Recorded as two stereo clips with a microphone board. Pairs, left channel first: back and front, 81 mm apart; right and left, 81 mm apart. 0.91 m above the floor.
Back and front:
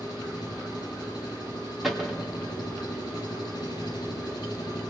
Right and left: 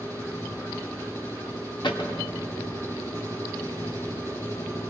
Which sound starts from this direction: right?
A cupboard door, at 1.8 s.